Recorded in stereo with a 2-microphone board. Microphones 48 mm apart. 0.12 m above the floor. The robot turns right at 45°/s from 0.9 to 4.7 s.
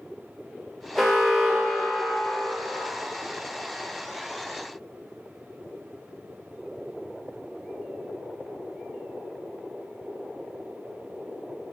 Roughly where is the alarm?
Behind.